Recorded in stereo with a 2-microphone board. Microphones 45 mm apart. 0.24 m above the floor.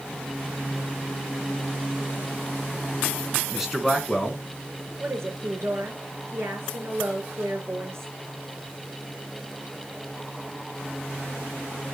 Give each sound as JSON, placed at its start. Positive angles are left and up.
{"t": 3.5, "sound": "a man speaking", "side_deg": -10, "distance_m": 2.5}
{"t": 5.0, "sound": "a woman speaking", "side_deg": -75, "distance_m": 4.0}